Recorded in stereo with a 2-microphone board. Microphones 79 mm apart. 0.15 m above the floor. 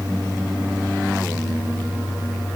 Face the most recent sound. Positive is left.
No sound to turn to.